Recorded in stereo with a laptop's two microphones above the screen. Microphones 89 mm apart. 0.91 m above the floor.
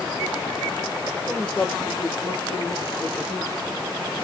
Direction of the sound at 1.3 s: 5° left (ahead or behind).